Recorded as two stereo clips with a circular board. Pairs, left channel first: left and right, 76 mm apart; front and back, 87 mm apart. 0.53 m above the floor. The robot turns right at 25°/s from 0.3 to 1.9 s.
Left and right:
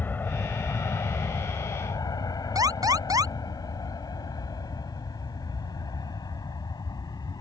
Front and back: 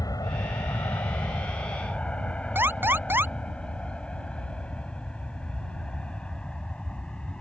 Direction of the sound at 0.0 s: 30° left.